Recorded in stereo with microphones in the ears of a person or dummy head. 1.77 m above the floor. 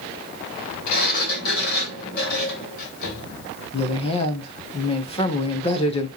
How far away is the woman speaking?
About 1.7 m.